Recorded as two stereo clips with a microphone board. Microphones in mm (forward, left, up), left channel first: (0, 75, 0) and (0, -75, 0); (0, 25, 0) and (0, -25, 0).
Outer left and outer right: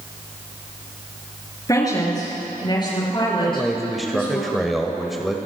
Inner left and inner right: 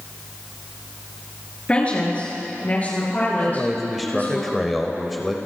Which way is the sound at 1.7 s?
25° left (ahead or behind).